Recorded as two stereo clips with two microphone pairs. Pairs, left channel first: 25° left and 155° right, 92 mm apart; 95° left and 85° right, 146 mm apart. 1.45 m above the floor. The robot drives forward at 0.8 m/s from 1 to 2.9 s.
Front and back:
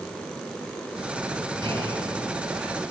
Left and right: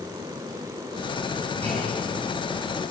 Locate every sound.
1.6 s a clunk: 170° left, 8.5 m